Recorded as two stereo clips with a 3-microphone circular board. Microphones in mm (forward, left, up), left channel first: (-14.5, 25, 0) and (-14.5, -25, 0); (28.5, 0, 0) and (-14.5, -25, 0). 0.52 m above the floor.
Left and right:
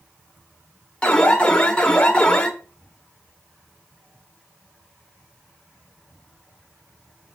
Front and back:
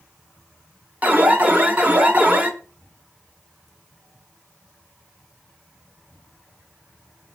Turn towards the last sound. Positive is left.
turn(degrees=160)